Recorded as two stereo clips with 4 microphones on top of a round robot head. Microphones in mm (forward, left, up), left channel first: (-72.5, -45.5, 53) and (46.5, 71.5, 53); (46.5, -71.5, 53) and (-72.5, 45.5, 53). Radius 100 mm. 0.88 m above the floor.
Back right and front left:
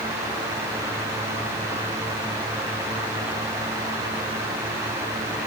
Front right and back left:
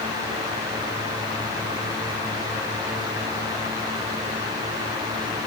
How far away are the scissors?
I don't hear scissors.